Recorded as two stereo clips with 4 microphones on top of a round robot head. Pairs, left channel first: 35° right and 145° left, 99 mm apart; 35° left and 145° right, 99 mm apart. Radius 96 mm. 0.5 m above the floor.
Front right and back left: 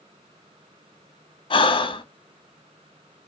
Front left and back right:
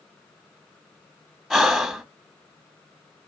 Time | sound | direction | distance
1.5 | breathing | 55° right | 0.8 m